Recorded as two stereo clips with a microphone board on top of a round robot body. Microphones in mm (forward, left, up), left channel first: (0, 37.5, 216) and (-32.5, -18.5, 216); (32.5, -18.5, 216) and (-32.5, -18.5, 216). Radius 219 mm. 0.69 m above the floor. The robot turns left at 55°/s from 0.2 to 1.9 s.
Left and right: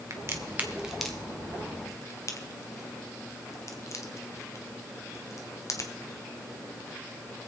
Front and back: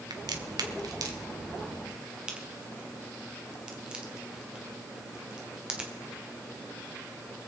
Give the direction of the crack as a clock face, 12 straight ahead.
5 o'clock.